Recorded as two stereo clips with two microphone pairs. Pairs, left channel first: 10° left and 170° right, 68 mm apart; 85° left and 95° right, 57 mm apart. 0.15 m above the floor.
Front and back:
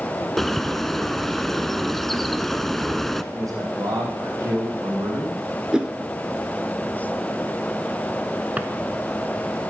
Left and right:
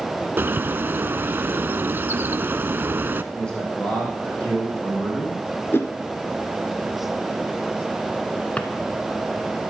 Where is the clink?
No clink in this recording.